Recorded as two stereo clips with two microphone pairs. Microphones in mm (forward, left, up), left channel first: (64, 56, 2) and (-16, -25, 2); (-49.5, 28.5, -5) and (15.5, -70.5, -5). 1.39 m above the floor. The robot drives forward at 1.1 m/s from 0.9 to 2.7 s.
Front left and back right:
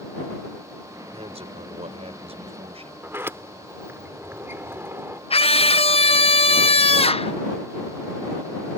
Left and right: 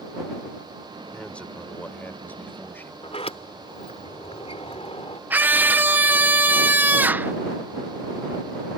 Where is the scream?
15° left.